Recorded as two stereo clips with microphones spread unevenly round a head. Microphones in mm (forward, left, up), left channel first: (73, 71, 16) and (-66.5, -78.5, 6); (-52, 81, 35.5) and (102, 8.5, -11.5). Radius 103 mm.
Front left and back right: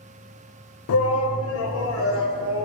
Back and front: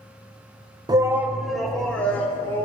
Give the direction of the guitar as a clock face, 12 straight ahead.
I don't hear a guitar.